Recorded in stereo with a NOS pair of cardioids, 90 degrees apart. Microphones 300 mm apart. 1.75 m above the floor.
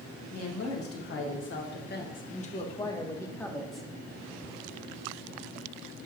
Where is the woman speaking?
60° left, 2 m; by 3.9 s straight ahead, 1.7 m.